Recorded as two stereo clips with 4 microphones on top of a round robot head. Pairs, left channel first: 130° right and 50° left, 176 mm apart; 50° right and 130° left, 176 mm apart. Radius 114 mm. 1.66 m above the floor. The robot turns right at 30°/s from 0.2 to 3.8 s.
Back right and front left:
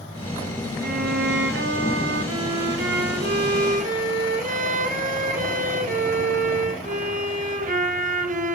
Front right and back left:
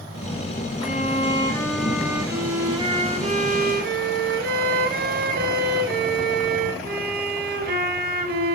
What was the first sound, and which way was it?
A violin, 5° left.